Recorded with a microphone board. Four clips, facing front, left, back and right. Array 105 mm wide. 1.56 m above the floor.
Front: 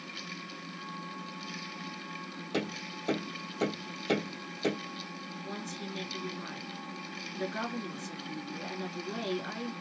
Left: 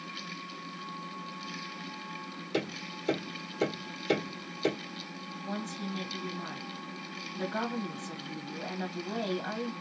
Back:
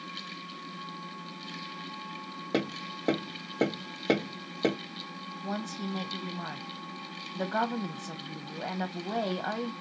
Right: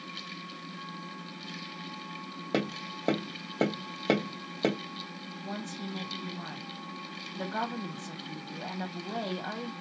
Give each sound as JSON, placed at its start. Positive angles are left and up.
{"t": 2.5, "sound": "tapping", "azimuth_deg": -120, "distance_m": 2.0}
{"t": 5.4, "sound": "a woman speaking", "azimuth_deg": -175, "distance_m": 1.3}